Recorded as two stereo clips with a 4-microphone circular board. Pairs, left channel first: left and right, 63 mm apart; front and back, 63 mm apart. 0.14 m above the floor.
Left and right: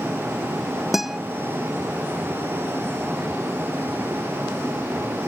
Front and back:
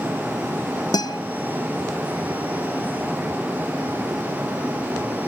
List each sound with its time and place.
0.9 s a guitar: 5° right